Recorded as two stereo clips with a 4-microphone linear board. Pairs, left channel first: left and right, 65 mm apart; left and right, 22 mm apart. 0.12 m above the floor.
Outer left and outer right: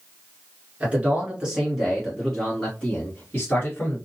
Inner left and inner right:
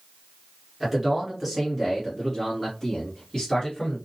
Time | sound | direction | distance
0.8 | a man speaking | 20° right (ahead or behind) | 1.8 m